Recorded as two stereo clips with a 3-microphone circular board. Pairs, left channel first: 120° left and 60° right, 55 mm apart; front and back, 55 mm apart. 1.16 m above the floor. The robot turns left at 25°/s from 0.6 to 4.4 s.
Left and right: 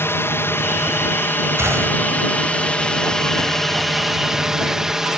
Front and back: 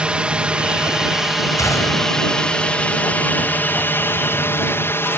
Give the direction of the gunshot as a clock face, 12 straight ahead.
1 o'clock.